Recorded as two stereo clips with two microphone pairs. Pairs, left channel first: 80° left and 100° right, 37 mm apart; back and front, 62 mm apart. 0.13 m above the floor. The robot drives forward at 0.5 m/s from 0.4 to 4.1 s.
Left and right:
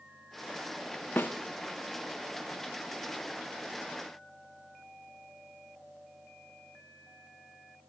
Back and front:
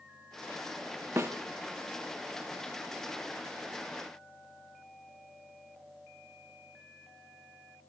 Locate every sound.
1.2 s a snare drum: 50° left, 3.5 m